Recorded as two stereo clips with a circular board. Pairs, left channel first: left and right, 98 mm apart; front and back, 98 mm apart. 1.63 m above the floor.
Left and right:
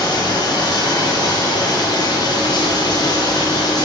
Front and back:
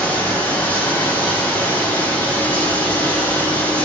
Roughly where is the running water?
Ahead left.